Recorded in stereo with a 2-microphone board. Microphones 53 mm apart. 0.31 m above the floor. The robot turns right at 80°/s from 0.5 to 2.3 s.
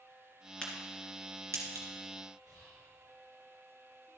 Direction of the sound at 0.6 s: 15° left (ahead or behind).